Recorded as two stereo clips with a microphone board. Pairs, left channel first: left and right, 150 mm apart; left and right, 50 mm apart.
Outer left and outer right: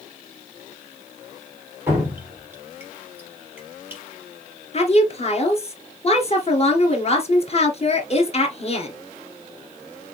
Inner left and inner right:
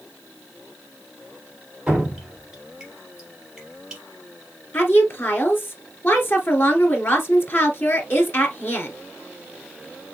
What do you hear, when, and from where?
1.9 s dripping: 15° right (ahead or behind), 3 m
4.7 s a woman speaking: 45° left (ahead or behind), 1.7 m